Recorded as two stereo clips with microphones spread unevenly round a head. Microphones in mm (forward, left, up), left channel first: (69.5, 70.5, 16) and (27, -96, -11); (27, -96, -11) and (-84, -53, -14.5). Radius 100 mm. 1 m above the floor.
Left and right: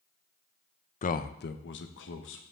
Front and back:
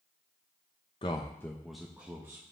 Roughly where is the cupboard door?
I don't hear a cupboard door.